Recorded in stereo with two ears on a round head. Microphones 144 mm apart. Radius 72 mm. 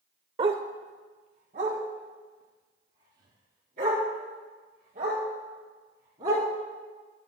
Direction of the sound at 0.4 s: 30° right (ahead or behind).